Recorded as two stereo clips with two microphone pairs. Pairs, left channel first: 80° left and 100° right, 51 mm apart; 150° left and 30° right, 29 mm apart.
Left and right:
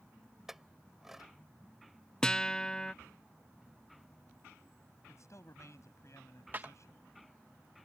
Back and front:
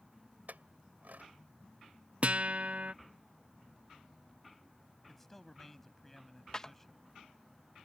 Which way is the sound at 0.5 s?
15° right.